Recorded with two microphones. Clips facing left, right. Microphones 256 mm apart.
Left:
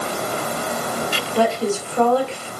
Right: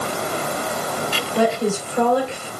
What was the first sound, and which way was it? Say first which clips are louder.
A woman speaking: even; 15° right (ahead or behind).